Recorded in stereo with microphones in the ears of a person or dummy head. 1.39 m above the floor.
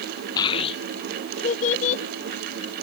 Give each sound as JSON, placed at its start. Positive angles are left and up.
{"t": 0.4, "sound": "a child speaking", "side_deg": 25}